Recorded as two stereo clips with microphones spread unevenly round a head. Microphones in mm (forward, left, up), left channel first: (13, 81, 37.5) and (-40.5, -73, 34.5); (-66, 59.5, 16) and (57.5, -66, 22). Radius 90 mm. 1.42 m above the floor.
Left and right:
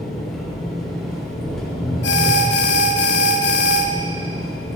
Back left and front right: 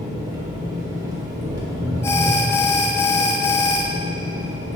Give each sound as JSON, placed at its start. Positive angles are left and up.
{"t": 0.0, "sound": "an engine running", "azimuth_deg": -10, "distance_m": 1.1}
{"t": 2.0, "sound": "an alarm", "azimuth_deg": 60, "distance_m": 0.5}